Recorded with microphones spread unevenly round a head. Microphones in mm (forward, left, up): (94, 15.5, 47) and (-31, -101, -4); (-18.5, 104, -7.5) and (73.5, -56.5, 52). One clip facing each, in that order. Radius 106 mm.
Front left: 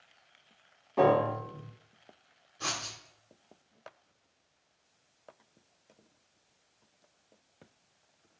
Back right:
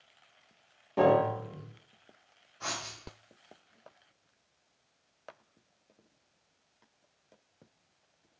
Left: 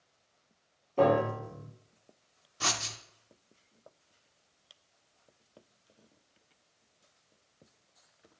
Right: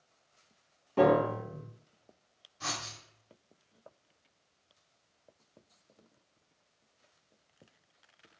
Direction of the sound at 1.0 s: 85° right.